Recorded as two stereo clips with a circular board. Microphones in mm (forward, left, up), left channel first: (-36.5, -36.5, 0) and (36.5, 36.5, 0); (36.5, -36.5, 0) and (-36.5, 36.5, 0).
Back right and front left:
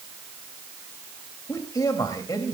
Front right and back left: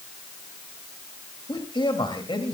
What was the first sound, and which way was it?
A man speaking, 85° right.